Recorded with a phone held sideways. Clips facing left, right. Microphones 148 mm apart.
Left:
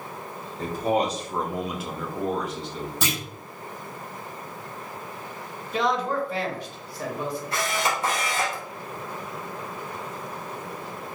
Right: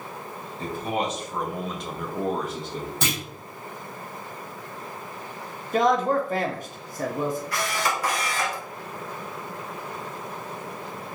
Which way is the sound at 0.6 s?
40° left (ahead or behind).